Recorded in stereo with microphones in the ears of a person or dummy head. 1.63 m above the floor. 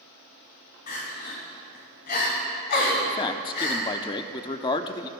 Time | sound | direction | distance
0.9 | crying | 55° left (ahead or behind) | 2 m
3.1 | a man speaking | 25° left (ahead or behind) | 0.6 m